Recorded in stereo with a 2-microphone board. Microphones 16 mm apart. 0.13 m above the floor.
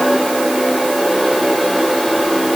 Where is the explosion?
No explosion in this recording.